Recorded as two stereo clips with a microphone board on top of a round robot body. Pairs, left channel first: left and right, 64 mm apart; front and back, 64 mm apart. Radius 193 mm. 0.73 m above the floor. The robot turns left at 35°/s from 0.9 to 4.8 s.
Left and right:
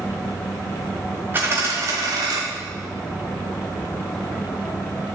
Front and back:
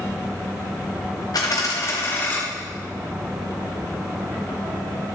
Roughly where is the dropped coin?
Ahead right.